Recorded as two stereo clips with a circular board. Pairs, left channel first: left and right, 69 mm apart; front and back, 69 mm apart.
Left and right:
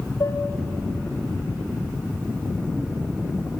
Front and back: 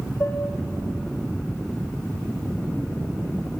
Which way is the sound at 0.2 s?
50° left.